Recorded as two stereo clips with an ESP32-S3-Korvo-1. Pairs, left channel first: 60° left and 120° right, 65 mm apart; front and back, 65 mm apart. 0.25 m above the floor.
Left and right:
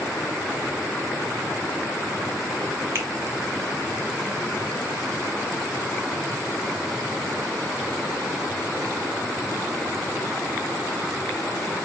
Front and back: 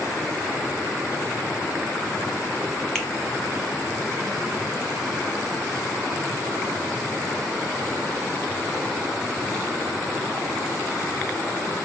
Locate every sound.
3.0 s a finger snap: 80° right, 1.3 m